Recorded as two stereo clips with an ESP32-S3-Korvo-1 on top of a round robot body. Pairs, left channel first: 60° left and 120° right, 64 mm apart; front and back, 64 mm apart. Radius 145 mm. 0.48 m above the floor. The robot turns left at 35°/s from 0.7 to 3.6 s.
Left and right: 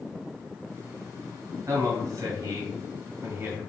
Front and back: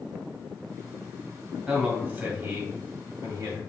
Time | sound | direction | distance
1.7 | a man speaking | 105° right | 1.9 m